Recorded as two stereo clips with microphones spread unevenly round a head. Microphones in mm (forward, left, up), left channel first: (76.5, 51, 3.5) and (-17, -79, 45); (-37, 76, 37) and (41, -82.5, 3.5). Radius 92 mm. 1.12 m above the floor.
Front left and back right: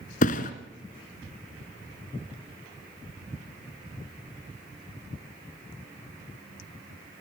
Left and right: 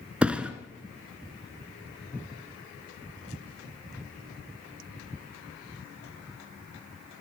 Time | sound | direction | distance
0.2 | a thud | 30° left | 1.2 m